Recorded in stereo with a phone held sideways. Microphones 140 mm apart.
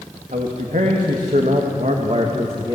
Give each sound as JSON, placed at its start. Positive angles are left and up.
{"t": 0.3, "sound": "a man speaking", "side_deg": -70, "distance_m": 2.5}